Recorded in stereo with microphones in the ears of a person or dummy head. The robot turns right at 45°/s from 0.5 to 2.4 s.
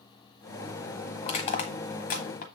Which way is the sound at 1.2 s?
40° left (ahead or behind).